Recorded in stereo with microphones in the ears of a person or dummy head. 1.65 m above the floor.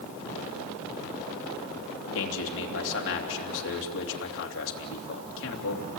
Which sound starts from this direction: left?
A man speaking, at 2.1 s.